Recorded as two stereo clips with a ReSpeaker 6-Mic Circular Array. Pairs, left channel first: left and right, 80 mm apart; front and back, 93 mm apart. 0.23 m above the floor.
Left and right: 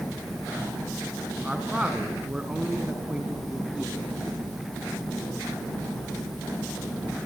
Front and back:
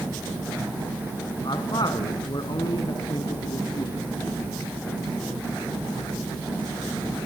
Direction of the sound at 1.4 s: 15° right.